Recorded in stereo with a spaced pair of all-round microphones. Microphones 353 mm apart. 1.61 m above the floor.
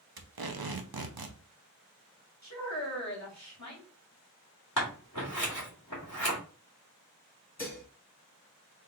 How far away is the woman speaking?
About 2.0 m.